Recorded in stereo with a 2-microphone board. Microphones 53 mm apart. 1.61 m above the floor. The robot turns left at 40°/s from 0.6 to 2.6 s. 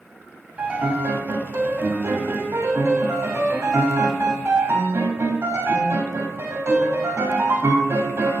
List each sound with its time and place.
0.6 s a piano: 35° right, 1.8 m; by 8.4 s 115° right, 1.8 m